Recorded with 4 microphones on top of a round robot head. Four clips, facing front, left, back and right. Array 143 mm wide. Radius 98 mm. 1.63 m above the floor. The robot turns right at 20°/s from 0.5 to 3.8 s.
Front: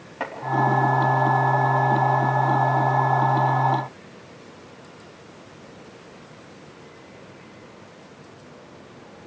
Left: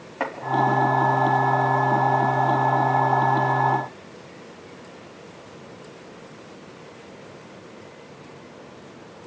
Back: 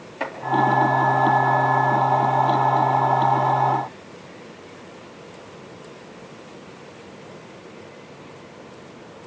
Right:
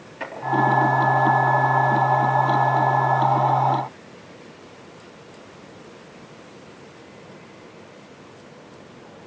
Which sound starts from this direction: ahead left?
Chopping, at 0.2 s.